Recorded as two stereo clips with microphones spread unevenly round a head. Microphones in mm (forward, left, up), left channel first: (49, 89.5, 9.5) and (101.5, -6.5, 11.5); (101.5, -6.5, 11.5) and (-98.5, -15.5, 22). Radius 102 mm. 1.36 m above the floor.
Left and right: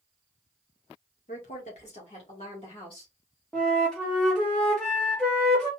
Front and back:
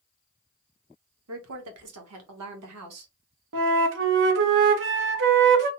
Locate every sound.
1.3 s a woman speaking: 160° left, 1.5 m; by 3.1 s 175° right, 2.5 m
3.5 s a flute: 155° right, 1.0 m